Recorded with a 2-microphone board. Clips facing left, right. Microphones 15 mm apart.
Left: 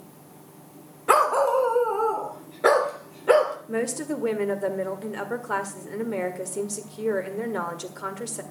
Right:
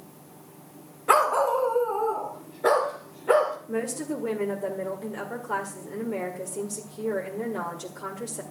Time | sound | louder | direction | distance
1.1 | a dog barking | left 1 dB | 5° left (ahead or behind) | 1.0 m
3.7 | a woman speaking | left 2 dB | 45° left (ahead or behind) | 1.7 m